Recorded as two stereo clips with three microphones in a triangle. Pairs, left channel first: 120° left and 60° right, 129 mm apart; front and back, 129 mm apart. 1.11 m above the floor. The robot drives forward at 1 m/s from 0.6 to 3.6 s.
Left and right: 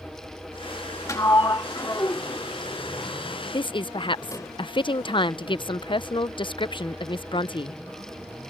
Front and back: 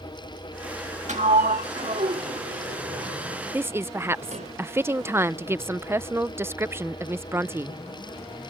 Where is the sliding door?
175° right; by 4.5 s straight behind.